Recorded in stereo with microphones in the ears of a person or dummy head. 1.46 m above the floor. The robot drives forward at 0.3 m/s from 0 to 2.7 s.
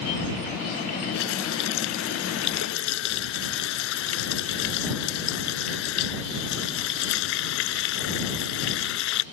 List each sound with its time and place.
1.1 s a running tap: 70° left (ahead or behind)